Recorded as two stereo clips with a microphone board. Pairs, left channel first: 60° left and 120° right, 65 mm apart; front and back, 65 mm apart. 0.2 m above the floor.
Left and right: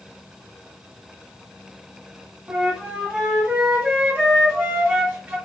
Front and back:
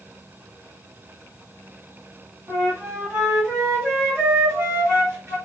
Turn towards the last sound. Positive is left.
turn(degrees=-175)